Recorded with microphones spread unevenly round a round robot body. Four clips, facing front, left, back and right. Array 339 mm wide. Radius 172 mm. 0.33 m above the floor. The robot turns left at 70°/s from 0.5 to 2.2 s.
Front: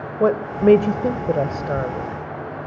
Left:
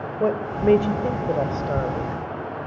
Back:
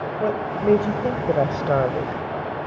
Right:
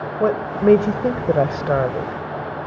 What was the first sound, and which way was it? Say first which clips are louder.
A woman speaking: right 4 dB, front 6 dB; 30° right.